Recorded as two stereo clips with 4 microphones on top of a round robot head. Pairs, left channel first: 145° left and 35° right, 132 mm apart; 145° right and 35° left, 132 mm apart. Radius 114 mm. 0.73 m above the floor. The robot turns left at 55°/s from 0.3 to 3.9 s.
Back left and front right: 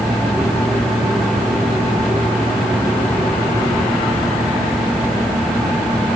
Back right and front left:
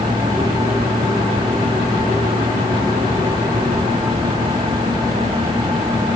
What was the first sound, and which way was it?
Only background noise.